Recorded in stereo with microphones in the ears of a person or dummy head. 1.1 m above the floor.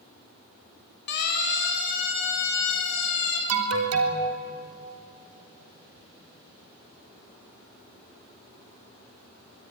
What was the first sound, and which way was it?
A siren, 55° left (ahead or behind).